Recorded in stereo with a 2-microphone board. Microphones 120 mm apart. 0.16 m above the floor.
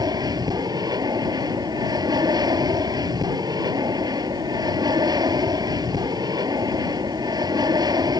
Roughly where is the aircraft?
Right.